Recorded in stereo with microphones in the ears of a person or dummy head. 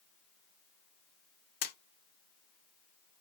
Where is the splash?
45° left (ahead or behind), 0.8 m.